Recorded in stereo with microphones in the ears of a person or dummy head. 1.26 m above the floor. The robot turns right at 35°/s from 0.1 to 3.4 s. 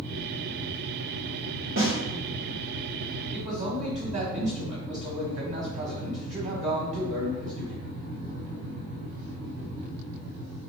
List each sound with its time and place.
1.8 s a snare drum: 75° right (ahead or behind), 1.8 m; by 1.9 s 80° right, 1.8 m
3.3 s a man speaking: 30° right (ahead or behind), 1.0 m; by 7.8 s 35° right (ahead or behind), 1.0 m